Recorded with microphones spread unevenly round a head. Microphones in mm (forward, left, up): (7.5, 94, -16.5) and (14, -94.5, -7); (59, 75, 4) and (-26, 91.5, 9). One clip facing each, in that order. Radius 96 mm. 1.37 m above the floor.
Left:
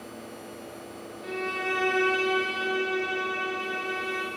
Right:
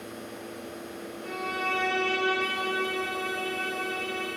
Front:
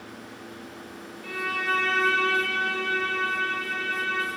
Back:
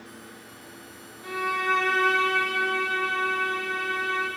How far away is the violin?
About 0.7 m.